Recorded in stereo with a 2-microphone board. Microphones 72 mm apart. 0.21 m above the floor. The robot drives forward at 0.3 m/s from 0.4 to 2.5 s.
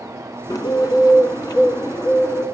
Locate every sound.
0.5 s a bird: 60° left (ahead or behind), 1.2 m; by 2.5 s 55° left (ahead or behind), 1.3 m